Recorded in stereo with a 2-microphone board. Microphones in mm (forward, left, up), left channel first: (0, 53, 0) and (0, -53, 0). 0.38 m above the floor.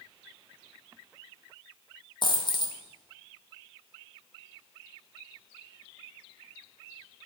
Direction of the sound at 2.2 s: 50° left (ahead or behind).